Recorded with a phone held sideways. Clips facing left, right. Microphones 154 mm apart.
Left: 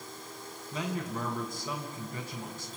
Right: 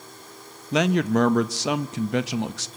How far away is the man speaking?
About 0.9 m.